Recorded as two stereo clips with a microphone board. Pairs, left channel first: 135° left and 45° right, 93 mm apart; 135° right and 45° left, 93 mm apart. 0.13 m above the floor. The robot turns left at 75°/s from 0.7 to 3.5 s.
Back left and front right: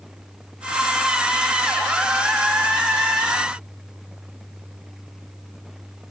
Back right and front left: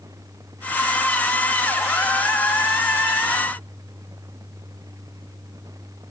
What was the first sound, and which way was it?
Only background noise.